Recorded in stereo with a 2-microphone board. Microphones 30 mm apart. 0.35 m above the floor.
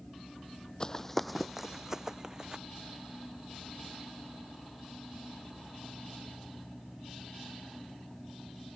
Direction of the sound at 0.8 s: 25° left (ahead or behind).